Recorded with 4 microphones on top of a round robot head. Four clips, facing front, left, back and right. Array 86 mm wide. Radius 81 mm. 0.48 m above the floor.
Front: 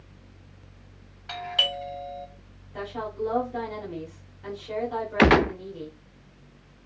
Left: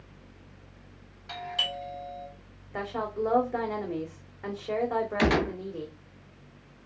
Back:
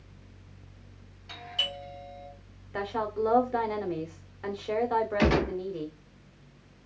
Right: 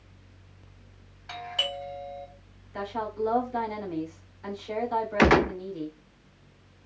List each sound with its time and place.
1.3 s a doorbell: 20° right, 3 m
2.7 s a woman speaking: 140° left, 2.5 m
5.2 s a gunshot: 35° right, 0.7 m